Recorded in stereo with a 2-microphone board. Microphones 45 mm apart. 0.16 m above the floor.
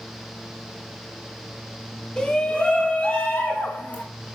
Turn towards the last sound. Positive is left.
turn(degrees=40)  # may be behind; listen again after turning